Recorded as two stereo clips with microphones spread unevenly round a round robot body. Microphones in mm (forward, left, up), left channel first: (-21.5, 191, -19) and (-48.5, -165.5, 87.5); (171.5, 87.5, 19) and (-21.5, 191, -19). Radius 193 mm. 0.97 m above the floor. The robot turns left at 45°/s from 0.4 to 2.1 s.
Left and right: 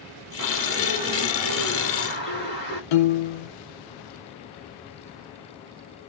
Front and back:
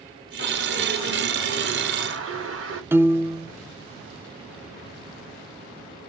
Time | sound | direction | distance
0.4 | a bird | 140° right | 2 m
2.9 | a piano | 65° left | 0.6 m